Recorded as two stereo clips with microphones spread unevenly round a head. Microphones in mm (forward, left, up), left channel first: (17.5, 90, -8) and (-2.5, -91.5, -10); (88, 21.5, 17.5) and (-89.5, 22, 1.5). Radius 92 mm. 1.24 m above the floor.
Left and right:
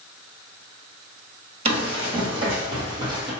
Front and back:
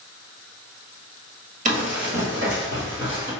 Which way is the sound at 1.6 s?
145° right.